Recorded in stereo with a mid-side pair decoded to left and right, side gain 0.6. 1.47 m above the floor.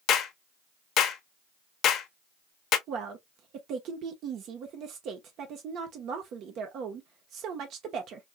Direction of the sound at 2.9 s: 60° right.